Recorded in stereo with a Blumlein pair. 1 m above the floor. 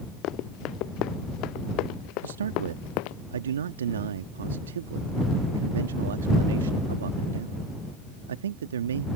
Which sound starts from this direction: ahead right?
A man speaking, at 2.2 s.